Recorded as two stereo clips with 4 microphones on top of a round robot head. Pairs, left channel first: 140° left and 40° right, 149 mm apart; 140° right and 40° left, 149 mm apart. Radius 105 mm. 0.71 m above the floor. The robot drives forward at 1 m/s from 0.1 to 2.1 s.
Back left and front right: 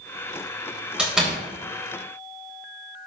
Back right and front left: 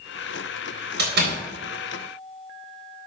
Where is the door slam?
45° left, 3.5 m; by 1.4 s 50° left, 3.5 m.